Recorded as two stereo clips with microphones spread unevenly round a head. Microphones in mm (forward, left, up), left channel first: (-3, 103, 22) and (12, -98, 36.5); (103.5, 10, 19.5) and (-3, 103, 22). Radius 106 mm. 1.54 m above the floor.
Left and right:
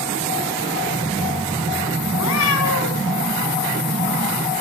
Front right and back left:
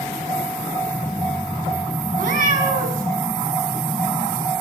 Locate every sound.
2.2 s a cat meowing: 115° left, 7.5 m